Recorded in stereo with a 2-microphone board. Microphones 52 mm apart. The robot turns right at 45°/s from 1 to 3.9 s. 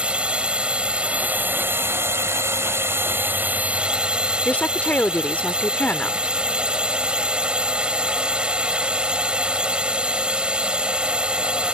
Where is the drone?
155° right; by 11.8 s 25° right.